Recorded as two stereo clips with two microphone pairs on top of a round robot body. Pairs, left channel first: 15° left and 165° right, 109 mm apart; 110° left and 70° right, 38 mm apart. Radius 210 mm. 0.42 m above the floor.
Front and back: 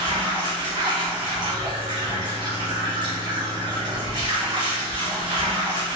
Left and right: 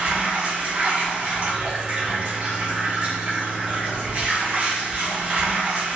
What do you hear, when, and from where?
0.0 s running water: 120° right, 1.4 m